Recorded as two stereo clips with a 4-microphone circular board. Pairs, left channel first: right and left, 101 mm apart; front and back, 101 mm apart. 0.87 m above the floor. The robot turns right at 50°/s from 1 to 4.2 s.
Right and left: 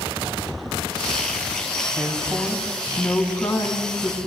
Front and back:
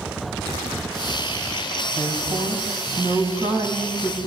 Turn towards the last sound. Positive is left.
turn(degrees=-100)